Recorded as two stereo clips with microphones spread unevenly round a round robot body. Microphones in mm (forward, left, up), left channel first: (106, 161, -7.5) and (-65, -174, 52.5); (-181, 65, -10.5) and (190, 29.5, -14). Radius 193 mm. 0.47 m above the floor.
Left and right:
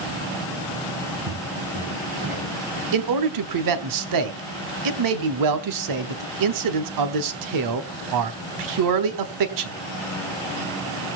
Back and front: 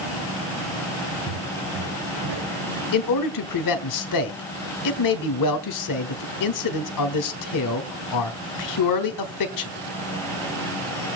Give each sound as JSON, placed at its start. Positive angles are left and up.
{"t": 1.3, "sound": "footsteps", "azimuth_deg": -55, "distance_m": 6.0}
{"t": 2.9, "sound": "a man speaking", "azimuth_deg": -155, "distance_m": 1.4}